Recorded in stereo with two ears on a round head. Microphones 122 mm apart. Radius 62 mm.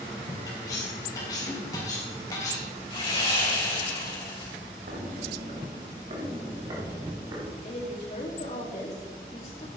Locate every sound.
0.5 s cutlery clinking: 30° left (ahead or behind), 4 m
2.9 s sawing: 35° left (ahead or behind), 6 m
4.9 s footsteps: 65° right (ahead or behind), 2.5 m; by 7.5 s 25° right (ahead or behind), 4.5 m
7.6 s a woman speaking: 45° left (ahead or behind), 3.5 m